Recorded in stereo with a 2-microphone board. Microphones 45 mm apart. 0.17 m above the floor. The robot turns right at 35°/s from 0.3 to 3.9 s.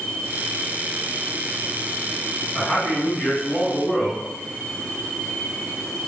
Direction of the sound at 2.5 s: 20° left (ahead or behind).